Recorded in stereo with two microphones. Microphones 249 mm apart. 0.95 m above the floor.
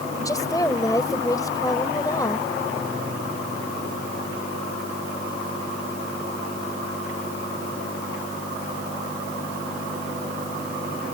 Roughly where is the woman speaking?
Centre.